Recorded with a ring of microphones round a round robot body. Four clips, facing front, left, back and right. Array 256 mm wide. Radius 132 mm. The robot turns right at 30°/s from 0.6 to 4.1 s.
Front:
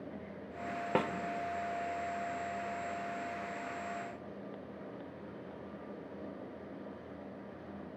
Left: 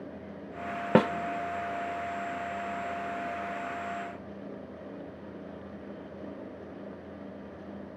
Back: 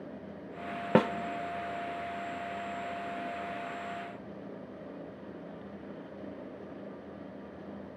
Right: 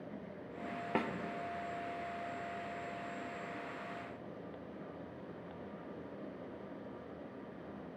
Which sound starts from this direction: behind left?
A snare drum, at 0.9 s.